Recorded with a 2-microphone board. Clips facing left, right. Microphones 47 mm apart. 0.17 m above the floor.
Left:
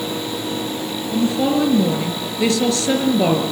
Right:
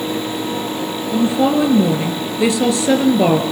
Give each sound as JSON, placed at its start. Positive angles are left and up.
{"t": 1.1, "sound": "a woman speaking", "side_deg": -15, "distance_m": 2.5}